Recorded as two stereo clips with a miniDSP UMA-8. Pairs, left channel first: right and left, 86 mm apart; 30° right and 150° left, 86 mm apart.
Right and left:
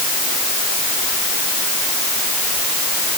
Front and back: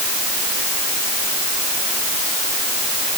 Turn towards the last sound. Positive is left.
No sound to turn to.